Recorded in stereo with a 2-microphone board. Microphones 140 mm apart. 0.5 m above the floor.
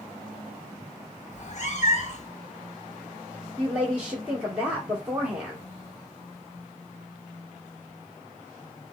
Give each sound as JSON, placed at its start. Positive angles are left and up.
{"t": 1.3, "sound": "a cat meowing", "side_deg": 55, "distance_m": 0.6}
{"t": 3.6, "sound": "a woman speaking", "side_deg": -10, "distance_m": 1.3}